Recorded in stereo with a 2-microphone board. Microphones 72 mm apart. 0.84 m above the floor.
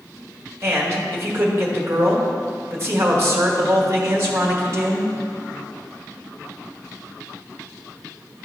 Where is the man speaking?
35° right (ahead or behind), 1.5 m.